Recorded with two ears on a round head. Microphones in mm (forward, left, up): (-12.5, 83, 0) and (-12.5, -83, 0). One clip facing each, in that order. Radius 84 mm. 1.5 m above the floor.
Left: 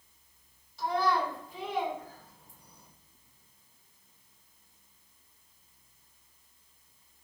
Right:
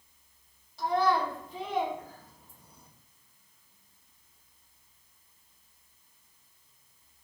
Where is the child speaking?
30° right (ahead or behind), 1.5 m.